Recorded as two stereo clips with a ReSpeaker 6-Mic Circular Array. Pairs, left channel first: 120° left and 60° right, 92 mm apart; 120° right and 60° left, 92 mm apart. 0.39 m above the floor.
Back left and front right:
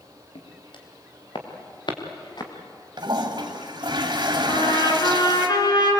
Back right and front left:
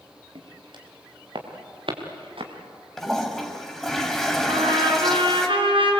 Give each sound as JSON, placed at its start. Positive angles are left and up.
{"t": 0.3, "sound": "footsteps", "azimuth_deg": 95, "distance_m": 5.0}
{"t": 3.0, "sound": "a toilet flushing", "azimuth_deg": -35, "distance_m": 2.0}
{"t": 4.5, "sound": "a trumpet", "azimuth_deg": 80, "distance_m": 4.0}